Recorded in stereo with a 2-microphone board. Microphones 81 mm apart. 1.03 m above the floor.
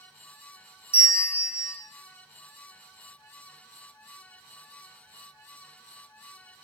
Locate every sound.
0.9 s a bell: 35° left (ahead or behind), 1.3 m